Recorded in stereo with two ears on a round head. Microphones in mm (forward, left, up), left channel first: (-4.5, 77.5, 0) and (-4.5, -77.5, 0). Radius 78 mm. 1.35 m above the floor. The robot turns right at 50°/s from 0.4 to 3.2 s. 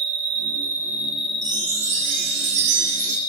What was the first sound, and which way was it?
An insect, 40° right.